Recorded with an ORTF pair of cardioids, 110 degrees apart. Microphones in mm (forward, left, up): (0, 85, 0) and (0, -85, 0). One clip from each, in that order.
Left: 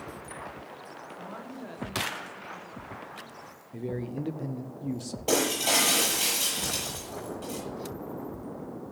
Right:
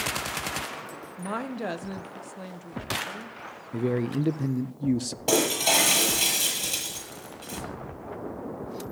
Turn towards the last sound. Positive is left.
turn(degrees=-20)